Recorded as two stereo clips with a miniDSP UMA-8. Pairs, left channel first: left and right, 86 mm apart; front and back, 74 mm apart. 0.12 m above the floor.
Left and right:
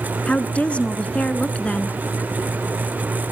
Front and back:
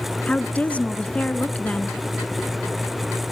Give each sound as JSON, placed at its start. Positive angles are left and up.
{"t": 0.3, "sound": "a woman speaking", "azimuth_deg": 40, "distance_m": 1.1}